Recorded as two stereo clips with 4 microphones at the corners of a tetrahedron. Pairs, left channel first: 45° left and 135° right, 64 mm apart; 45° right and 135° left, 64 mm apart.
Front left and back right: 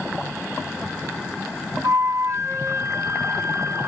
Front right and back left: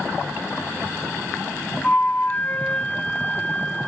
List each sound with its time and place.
1.8 s a flute: 105° right, 1.0 m